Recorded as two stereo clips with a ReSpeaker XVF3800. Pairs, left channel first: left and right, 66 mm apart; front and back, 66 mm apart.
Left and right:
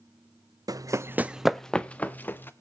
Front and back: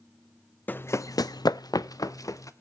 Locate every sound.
0.7 s running footsteps: 65° right, 0.6 m; by 2.5 s 30° left, 1.2 m